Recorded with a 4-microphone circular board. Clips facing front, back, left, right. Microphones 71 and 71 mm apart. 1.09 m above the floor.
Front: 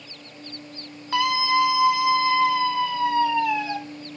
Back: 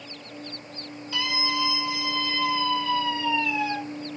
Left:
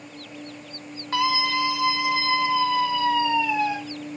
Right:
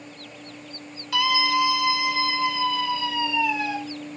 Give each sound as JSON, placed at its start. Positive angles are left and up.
{"t": 1.1, "sound": "a scream", "azimuth_deg": 40, "distance_m": 2.0}